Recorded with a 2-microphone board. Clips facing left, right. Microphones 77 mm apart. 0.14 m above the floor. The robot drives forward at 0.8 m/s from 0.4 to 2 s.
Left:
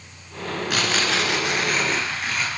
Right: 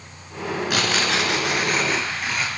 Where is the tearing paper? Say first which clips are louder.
Even; centre (ahead or behind), 1.9 m.